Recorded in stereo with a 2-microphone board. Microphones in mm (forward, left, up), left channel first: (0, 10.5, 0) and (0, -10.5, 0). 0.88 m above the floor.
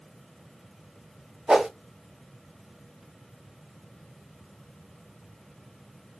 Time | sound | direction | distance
1.5 | a whoosh | 65° right (ahead or behind) | 2.5 m